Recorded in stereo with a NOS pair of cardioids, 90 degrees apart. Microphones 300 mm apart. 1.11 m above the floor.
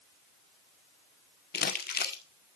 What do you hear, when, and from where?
1.5 s crumpling: 30° left, 1.9 m